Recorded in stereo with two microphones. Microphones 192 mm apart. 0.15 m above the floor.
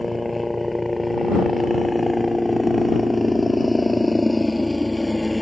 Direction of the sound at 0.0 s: Centre (ahead or behind).